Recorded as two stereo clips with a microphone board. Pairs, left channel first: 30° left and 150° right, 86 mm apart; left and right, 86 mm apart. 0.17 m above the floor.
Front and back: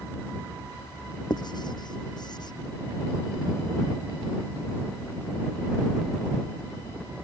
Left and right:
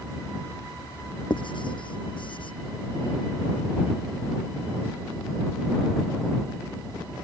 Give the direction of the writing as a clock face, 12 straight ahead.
10 o'clock.